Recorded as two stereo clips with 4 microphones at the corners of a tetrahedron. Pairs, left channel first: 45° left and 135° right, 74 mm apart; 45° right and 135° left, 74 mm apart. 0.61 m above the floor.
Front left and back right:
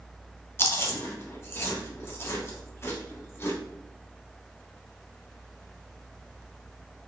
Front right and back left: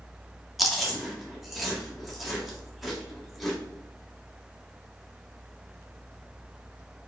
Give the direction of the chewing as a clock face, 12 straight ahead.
10 o'clock.